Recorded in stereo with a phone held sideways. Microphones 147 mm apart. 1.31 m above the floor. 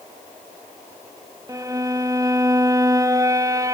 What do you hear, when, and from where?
1.5 s a violin: 25° right (ahead or behind), 1.7 m